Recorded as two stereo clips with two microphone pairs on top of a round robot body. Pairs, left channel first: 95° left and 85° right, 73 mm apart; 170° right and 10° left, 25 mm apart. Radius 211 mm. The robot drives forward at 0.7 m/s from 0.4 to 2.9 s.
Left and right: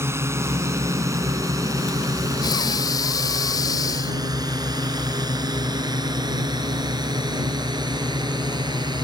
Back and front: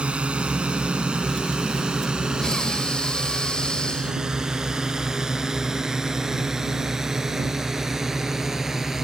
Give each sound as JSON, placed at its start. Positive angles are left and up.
{"t": 0.0, "sound": "a drone", "azimuth_deg": -30}
{"t": 2.4, "sound": "breathing", "azimuth_deg": 125}